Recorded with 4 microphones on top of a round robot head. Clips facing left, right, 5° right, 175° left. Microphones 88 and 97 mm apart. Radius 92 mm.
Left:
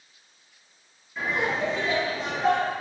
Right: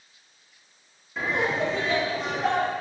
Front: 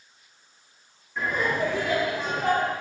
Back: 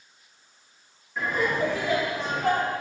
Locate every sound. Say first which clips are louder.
1.2 s laughter: right 1 dB, even; 100° right, 1.0 m; by 2.7 s 30° right, 2 m